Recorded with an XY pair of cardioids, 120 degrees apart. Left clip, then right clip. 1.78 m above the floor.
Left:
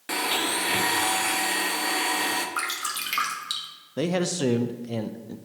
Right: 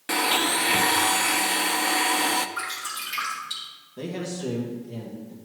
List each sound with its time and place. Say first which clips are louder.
0.1 s a blender: right 3 dB; 20° right, 0.6 m
2.6 s dripping: left 2 dB; 55° left, 1.8 m
4.0 s a man speaking: left 7 dB; 65° left, 0.7 m